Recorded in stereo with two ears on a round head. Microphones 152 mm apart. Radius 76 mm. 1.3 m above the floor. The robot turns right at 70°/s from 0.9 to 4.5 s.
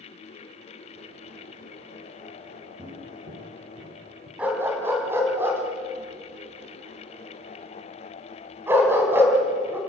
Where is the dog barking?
5° right (ahead or behind), 3.5 m; by 9.8 s 15° right (ahead or behind), 3.5 m.